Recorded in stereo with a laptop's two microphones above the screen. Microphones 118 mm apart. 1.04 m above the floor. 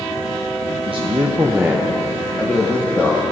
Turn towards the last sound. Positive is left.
turn(degrees=15)  # may be behind; listen again after turning